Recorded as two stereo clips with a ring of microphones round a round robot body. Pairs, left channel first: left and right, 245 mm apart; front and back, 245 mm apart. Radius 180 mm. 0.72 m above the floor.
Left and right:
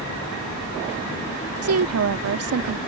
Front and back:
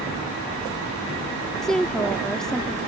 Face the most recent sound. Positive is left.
turn(degrees=-90)